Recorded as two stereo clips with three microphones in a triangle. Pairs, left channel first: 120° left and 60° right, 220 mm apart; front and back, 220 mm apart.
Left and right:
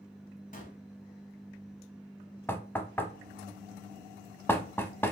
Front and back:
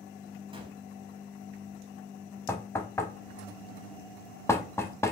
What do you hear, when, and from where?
0.5 s a gunshot: 130° left, 0.9 m
2.5 s knocking: 60° left, 0.7 m